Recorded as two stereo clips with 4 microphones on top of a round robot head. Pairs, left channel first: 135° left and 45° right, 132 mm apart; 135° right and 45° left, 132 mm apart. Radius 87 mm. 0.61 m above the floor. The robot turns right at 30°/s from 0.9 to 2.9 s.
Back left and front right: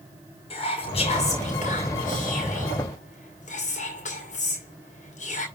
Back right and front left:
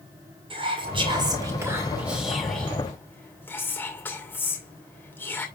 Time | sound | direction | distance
0.5 | whispering | 95° left | 2.5 m